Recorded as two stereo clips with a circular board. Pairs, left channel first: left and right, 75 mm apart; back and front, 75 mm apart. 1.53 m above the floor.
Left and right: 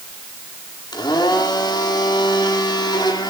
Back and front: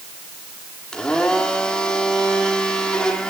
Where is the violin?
No violin in this recording.